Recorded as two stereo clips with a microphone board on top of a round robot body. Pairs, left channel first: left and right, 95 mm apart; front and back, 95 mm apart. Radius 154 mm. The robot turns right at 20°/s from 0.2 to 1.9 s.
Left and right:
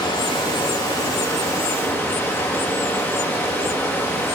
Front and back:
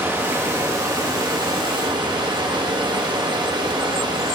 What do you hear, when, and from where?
0.0 s running water: 115° left, 1.8 m; by 4.3 s 150° left, 1.8 m